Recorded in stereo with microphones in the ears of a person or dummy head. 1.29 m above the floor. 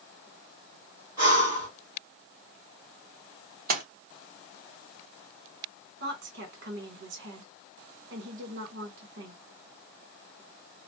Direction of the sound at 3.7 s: 45° right (ahead or behind).